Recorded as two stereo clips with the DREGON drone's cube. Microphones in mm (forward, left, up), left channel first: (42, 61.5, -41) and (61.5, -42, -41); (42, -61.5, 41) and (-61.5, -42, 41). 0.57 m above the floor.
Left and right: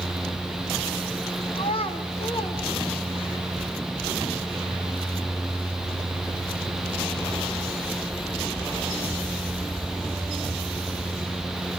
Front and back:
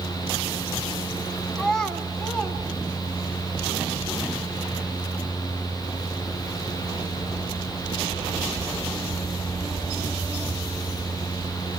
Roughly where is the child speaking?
Left.